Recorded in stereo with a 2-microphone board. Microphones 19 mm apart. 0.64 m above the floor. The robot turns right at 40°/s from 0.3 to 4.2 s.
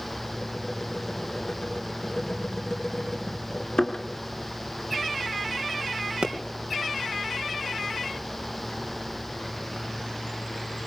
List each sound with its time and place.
3.8 s a thud: 45° left (ahead or behind), 2.5 m; by 4.0 s 35° left (ahead or behind), 2.5 m
6.2 s a pop: 65° right (ahead or behind), 3.5 m